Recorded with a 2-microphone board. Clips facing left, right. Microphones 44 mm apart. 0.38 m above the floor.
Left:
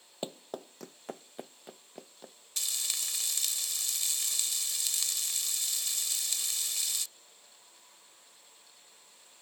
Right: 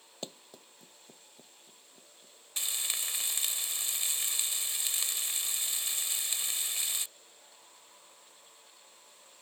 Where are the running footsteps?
20° left (ahead or behind); by 2.4 s 75° left (ahead or behind).